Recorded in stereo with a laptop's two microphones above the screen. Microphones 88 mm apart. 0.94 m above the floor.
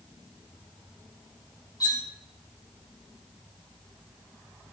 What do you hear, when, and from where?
1.8 s cutlery clinking: 50° left (ahead or behind), 1.2 m